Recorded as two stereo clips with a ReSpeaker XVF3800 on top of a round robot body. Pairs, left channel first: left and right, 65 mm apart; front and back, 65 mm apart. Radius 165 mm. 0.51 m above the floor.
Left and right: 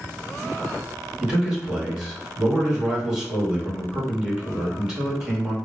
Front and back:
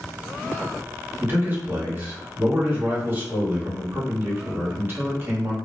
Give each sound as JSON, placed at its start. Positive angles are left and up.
{"t": 1.2, "sound": "a man speaking", "azimuth_deg": -160, "distance_m": 1.5}